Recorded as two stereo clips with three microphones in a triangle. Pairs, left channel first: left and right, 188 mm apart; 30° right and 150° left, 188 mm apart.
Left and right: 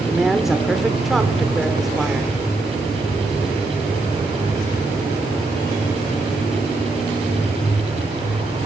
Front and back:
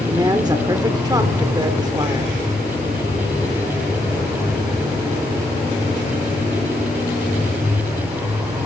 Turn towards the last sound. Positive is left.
turn(degrees=-175)